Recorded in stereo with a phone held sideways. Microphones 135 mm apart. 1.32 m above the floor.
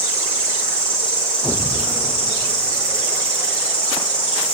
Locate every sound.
0.0 s an insect: 10° left (ahead or behind), 7 m